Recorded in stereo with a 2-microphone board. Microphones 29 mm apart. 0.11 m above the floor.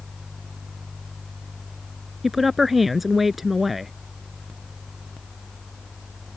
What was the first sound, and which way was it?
A woman speaking, 5° right (ahead or behind).